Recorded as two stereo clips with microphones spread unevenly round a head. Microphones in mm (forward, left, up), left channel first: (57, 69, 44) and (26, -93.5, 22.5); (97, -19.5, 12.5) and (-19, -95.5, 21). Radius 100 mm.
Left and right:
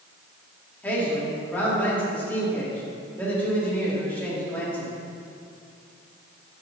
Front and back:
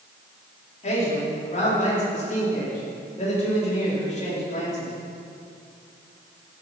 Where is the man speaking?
Straight ahead, 4.5 m.